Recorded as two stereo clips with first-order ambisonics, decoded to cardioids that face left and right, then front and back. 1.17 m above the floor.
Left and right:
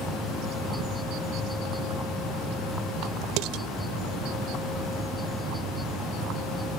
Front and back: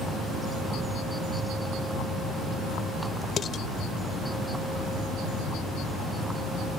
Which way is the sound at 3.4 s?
65° right.